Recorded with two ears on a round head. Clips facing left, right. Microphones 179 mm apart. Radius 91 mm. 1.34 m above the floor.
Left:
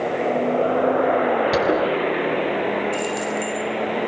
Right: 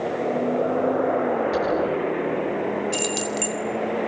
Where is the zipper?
70° left (ahead or behind), 8 m.